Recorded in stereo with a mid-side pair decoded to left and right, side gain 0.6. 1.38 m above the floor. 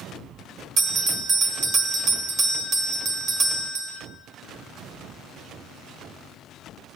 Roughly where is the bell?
Ahead right.